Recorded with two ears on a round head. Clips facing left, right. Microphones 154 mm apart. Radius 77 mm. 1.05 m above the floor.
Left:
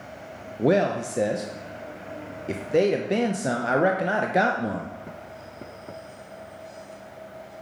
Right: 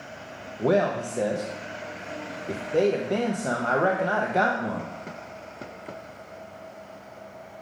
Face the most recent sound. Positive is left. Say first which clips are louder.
# left 1 dB
turn(degrees=20)  # may be behind; listen again after turning